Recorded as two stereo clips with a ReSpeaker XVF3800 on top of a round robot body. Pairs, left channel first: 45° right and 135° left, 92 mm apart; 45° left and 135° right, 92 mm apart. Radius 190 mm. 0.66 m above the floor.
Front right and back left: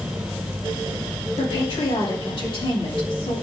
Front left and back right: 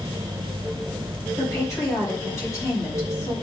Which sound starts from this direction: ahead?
A woman speaking, at 1.4 s.